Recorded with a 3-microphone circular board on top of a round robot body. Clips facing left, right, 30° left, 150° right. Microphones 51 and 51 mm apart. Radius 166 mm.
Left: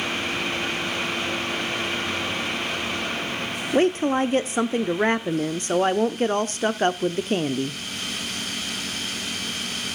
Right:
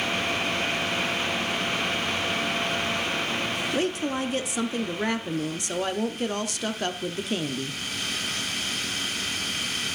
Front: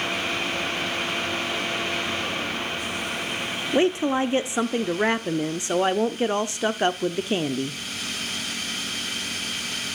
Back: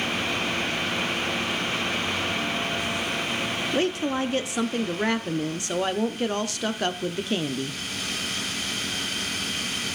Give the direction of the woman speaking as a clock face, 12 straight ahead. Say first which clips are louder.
Left 10 dB, front 5 dB; 9 o'clock.